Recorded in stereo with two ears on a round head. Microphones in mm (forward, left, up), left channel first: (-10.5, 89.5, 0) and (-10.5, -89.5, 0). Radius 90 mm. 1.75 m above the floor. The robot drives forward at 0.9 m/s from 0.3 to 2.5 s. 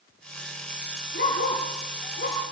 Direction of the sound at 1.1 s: 60° left (ahead or behind).